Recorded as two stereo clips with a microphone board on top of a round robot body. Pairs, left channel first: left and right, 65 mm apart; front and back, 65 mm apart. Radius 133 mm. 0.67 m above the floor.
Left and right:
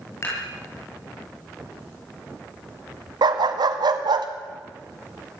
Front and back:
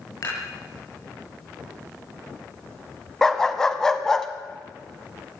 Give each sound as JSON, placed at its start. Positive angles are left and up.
{"t": 0.2, "sound": "dishes clattering", "azimuth_deg": 40, "distance_m": 10.0}
{"t": 3.2, "sound": "a dog barking", "azimuth_deg": -80, "distance_m": 1.4}